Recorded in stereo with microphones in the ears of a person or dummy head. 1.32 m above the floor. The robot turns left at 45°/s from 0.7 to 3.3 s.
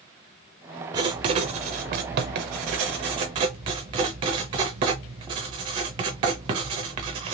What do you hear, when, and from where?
0.9 s writing: 35° right, 0.5 m; by 7.3 s 140° right, 0.5 m